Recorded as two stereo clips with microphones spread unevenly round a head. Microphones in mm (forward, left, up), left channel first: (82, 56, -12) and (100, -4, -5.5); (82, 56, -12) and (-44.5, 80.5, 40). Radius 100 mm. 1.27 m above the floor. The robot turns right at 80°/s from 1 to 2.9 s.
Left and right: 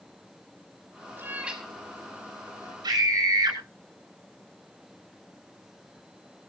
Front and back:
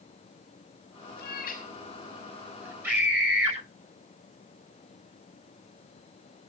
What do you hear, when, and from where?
1.2 s a cat meowing: 25° right, 5.5 m; by 2.7 s 100° left, 5.5 m
2.8 s a scream: 110° right, 8 m; by 3.6 s 105° right, 8 m